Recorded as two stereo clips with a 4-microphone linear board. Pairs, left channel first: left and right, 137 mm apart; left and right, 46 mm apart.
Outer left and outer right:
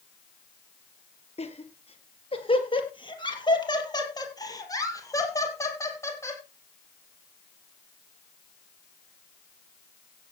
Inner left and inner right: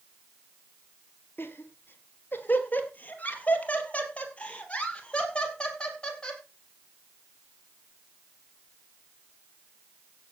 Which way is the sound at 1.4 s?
50° left (ahead or behind).